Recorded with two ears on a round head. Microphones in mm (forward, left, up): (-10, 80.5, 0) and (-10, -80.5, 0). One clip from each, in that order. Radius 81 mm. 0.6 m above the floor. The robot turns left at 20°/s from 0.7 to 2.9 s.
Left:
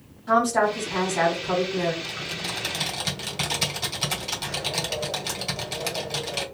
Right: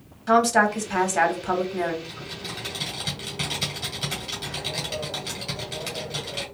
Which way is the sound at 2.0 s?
35° left (ahead or behind).